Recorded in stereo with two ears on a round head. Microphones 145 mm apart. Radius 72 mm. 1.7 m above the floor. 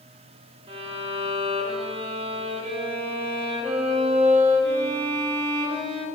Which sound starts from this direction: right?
A violin, at 0.7 s.